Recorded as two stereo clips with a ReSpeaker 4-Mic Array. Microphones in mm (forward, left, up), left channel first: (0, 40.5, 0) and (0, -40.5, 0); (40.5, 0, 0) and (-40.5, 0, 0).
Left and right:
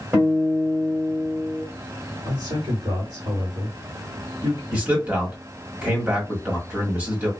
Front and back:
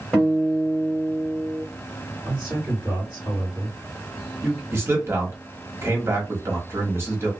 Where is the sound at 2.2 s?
110° right, 2 m.